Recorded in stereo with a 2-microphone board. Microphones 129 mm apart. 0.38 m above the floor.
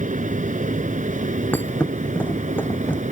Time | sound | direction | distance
0.0 | an aircraft | 75° right (ahead or behind) | ?
1.5 | a thud | 15° left (ahead or behind) | ?